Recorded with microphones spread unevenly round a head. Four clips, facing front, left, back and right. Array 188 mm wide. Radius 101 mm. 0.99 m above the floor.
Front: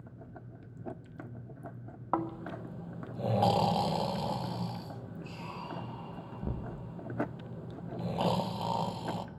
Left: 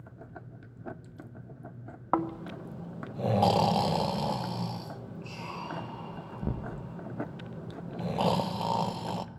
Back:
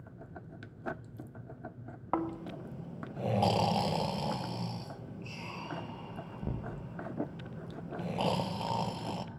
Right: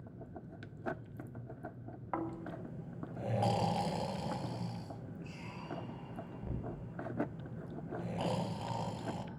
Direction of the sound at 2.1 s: 80° left.